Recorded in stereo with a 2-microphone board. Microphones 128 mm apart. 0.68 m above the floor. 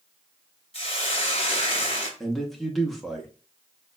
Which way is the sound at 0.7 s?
50° left (ahead or behind).